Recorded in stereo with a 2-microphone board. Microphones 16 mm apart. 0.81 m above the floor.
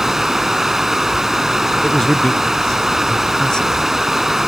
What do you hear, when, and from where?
0.0 s running water: 25° right (ahead or behind)
1.8 s a man speaking: 50° left (ahead or behind)